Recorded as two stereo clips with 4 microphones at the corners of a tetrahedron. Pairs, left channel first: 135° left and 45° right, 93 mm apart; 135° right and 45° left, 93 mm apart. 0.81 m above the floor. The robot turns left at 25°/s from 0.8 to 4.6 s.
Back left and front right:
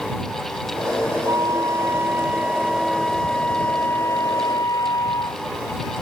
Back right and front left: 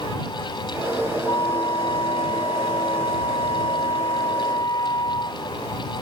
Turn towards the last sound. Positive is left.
turn(degrees=-175)